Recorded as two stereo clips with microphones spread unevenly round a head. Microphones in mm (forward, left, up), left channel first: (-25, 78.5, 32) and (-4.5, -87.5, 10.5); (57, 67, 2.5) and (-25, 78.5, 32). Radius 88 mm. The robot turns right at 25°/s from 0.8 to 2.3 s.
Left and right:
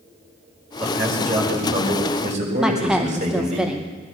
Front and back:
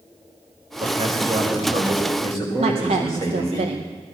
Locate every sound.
0.8 s a man speaking: 170° right, 5 m; by 3.6 s 135° right, 5 m
2.6 s a woman speaking: 170° right, 0.7 m